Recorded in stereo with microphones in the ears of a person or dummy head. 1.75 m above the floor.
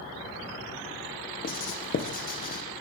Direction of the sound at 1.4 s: 40° left (ahead or behind).